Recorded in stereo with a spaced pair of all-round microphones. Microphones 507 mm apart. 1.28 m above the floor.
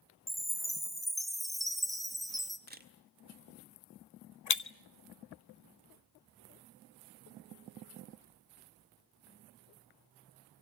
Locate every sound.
0.3 s a chime: centre (ahead or behind), 2.0 m
2.7 s a camera shutter: 20° right (ahead or behind), 1.9 m
4.5 s breaking glass: 35° left (ahead or behind), 0.6 m